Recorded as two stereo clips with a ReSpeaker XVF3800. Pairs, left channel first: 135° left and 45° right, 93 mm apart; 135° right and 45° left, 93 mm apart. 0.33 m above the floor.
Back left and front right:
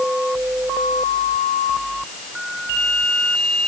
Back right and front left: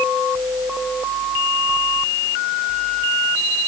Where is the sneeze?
I don't hear a sneeze.